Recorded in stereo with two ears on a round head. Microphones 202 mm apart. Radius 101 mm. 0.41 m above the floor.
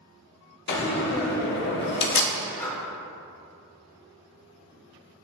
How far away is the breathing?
About 1.1 m.